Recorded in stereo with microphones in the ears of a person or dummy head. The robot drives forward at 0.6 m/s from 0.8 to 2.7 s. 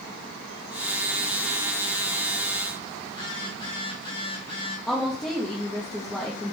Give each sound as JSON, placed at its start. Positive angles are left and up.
{"t": 3.1, "sound": "a phone buzzing", "side_deg": 20, "distance_m": 1.3}
{"t": 4.9, "sound": "a woman speaking", "side_deg": 0, "distance_m": 0.8}